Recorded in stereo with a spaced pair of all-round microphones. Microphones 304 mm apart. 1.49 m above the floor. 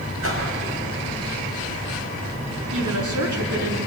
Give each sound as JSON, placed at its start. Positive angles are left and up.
{"t": 0.2, "sound": "a whoosh", "side_deg": -50, "distance_m": 6.0}
{"t": 2.7, "sound": "a woman speaking", "side_deg": -70, "distance_m": 4.5}